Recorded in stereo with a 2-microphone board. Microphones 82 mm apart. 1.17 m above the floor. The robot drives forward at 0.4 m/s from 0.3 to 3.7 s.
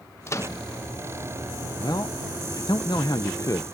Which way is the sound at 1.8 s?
45° left (ahead or behind).